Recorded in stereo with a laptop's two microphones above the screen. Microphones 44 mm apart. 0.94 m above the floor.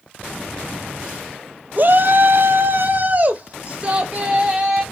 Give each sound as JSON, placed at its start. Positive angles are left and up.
{"t": 1.8, "sound": "a shout", "side_deg": -45, "distance_m": 0.8}